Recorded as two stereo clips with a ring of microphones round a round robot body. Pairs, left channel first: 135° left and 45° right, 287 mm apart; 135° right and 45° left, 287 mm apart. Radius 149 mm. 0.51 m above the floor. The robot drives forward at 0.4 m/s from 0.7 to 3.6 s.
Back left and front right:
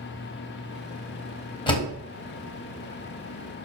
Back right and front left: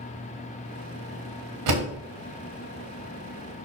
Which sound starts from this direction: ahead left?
A door slam, at 1.7 s.